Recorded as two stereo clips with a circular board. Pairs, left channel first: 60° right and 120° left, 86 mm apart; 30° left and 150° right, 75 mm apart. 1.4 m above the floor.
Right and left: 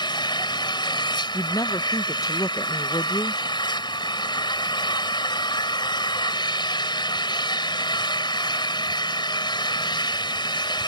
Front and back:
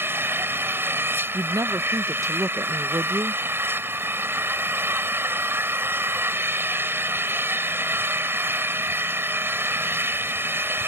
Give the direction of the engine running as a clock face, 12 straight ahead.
3 o'clock.